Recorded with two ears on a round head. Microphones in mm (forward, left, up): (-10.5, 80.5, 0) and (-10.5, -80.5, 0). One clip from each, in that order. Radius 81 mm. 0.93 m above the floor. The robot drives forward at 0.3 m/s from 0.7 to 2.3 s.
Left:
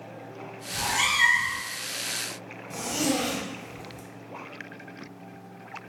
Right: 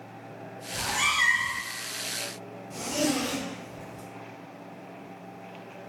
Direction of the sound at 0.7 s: 15° left (ahead or behind).